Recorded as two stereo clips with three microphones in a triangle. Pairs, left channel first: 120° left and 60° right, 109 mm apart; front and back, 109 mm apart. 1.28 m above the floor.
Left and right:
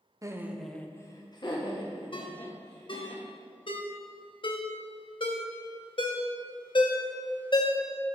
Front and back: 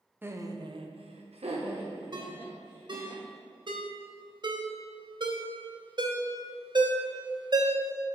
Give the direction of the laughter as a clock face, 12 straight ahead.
4 o'clock.